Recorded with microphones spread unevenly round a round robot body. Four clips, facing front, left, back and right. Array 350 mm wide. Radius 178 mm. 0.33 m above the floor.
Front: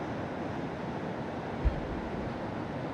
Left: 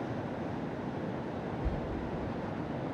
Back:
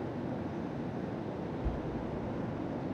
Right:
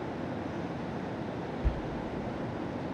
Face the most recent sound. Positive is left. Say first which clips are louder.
# even, front 2 dB
turn(degrees=-35)